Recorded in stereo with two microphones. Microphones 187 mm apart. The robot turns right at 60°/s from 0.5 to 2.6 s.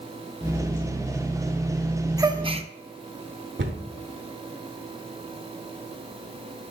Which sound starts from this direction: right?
A cupboard door, at 3.6 s.